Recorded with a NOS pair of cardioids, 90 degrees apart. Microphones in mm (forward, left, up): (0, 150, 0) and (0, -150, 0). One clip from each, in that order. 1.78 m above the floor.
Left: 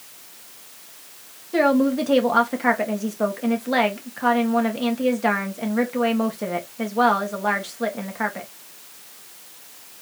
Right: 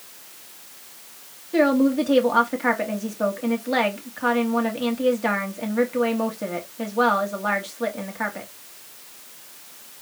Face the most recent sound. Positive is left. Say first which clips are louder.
# even
turn(degrees=10)